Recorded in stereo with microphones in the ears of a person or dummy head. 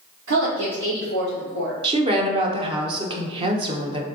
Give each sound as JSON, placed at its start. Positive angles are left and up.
{"t": 0.3, "sound": "a woman speaking", "side_deg": -85, "distance_m": 2.0}
{"t": 1.8, "sound": "a woman speaking", "side_deg": -35, "distance_m": 1.0}